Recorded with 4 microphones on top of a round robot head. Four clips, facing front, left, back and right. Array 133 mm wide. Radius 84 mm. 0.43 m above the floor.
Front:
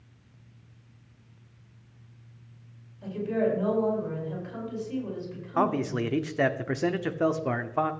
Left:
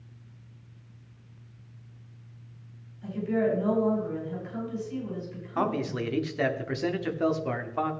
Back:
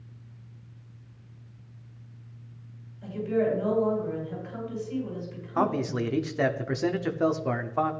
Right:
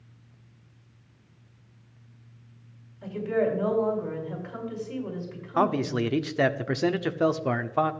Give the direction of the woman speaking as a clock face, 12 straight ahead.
2 o'clock.